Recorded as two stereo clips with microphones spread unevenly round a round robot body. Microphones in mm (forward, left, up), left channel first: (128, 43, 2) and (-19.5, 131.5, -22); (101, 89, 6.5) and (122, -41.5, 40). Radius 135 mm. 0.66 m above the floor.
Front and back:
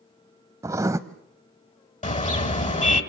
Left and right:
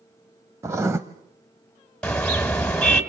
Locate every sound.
0.6 s writing: 135° right, 0.5 m
2.0 s a car horn: 15° left, 3 m